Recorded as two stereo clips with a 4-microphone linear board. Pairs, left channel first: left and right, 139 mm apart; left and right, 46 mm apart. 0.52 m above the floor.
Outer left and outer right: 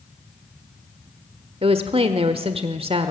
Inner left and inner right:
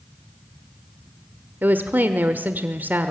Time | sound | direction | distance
1.6 | a woman speaking | 45° right (ahead or behind) | 1.3 m